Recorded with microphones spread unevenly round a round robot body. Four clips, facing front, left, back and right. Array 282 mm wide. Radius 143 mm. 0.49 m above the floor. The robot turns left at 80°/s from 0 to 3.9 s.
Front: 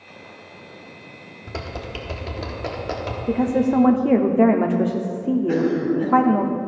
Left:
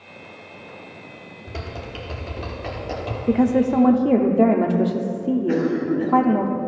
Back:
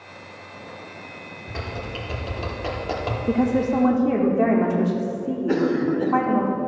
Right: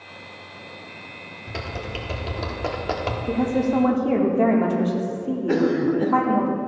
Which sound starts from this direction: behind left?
A woman speaking, at 3.3 s.